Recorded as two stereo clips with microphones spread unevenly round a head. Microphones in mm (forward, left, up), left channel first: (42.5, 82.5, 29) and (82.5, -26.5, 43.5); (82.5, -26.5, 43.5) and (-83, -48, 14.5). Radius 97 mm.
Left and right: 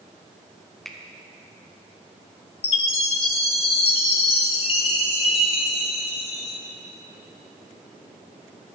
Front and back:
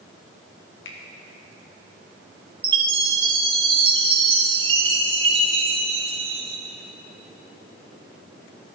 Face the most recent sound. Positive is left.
turn(degrees=125)